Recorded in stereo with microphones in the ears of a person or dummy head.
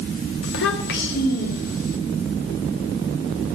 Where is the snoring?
I don't hear snoring.